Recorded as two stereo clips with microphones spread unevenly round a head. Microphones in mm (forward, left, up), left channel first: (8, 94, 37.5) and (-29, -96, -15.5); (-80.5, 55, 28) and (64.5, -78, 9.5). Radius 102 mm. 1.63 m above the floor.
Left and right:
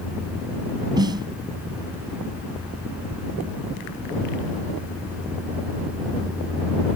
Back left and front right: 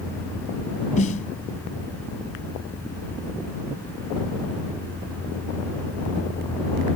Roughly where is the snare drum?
Behind.